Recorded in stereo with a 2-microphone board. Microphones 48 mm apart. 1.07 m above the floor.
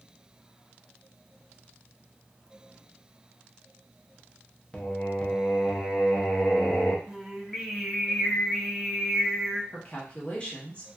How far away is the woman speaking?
About 1.1 m.